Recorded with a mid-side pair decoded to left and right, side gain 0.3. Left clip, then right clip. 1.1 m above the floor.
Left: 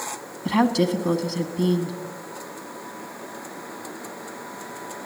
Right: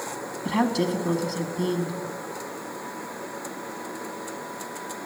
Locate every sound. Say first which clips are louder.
0.5 s a woman speaking: left 4 dB; 45° left, 1.6 m